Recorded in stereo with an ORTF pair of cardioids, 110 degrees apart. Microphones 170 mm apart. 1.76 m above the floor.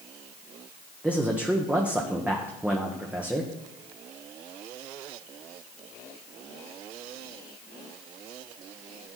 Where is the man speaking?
10° right, 1.3 m.